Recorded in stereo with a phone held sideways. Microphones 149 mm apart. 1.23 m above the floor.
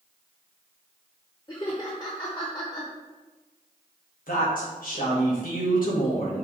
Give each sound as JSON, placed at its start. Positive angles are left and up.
{"t": 1.5, "sound": "laughter", "side_deg": 30, "distance_m": 1.0}
{"t": 4.3, "sound": "a woman speaking", "side_deg": 75, "distance_m": 1.7}